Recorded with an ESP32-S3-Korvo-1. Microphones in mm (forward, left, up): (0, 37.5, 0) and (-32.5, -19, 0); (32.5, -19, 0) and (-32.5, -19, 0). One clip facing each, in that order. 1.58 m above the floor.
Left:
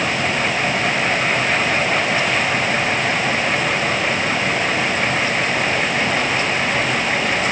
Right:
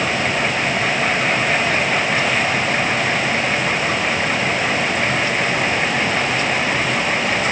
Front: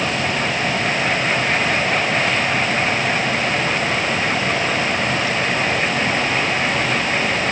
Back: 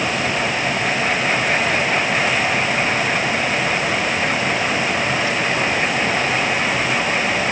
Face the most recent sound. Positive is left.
No sound to turn to.